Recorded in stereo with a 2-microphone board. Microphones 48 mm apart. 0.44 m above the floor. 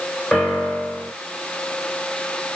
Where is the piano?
20° left (ahead or behind), 1.3 m.